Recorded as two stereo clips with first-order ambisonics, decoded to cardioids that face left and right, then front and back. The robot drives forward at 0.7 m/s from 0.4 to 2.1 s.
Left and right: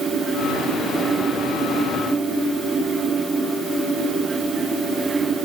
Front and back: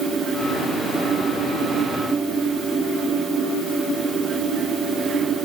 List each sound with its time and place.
Only background noise.